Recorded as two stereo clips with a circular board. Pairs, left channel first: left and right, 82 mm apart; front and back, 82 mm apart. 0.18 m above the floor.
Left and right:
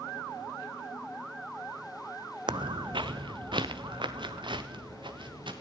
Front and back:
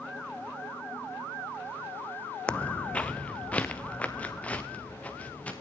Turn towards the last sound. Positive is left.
turn(degrees=-75)